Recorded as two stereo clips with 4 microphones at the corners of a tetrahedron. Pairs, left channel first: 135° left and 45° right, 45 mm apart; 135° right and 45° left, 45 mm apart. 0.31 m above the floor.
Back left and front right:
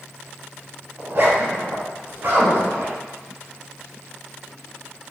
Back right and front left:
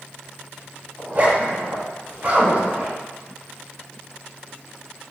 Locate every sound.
1.0 s a zipper: 5° right, 1.0 m